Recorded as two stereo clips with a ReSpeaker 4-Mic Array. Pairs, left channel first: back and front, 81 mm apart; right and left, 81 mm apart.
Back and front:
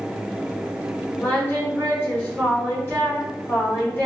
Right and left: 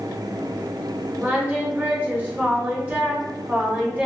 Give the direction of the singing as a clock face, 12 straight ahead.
7 o'clock.